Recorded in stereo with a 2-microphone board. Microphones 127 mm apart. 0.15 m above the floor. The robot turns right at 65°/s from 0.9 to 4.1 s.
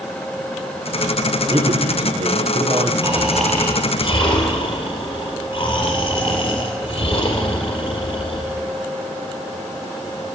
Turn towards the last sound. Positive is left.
turn(degrees=45)